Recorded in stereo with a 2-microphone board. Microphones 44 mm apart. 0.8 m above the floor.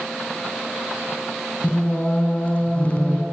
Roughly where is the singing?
Left.